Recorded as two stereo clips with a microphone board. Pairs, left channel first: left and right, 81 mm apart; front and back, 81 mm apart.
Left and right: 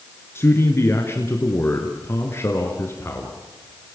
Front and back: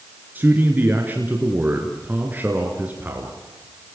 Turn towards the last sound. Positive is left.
turn(degrees=125)